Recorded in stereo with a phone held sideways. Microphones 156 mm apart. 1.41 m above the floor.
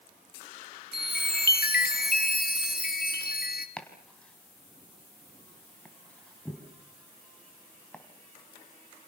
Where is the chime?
80° left, 2 m.